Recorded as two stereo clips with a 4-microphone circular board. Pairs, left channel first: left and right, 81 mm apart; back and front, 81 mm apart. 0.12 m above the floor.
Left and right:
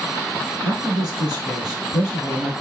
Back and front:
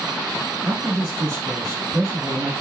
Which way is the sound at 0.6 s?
25° right.